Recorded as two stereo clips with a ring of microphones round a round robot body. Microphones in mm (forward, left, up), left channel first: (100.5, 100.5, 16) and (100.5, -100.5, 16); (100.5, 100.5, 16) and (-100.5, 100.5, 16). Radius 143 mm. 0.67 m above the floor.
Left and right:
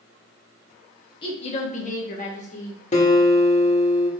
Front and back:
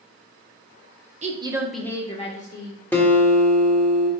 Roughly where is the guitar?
Left.